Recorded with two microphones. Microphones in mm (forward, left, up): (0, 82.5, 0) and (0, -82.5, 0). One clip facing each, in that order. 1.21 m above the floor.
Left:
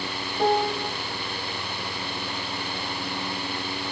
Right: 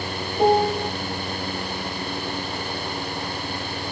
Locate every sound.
0.4 s a piano: 20° right (ahead or behind), 0.9 m